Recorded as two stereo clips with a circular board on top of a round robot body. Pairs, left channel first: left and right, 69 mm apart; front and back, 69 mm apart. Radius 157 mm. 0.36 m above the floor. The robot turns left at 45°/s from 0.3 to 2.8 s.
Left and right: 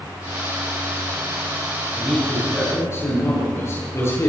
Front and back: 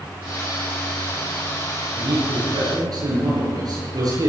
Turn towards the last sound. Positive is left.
turn(degrees=145)